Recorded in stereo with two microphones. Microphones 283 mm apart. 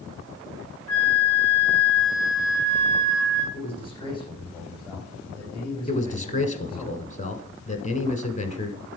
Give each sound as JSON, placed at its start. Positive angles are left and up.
{"t": 0.9, "sound": "a flute", "side_deg": 10, "distance_m": 5.5}
{"t": 3.5, "sound": "a man speaking", "side_deg": 15, "distance_m": 7.5}
{"t": 5.9, "sound": "a man speaking", "side_deg": 25, "distance_m": 1.3}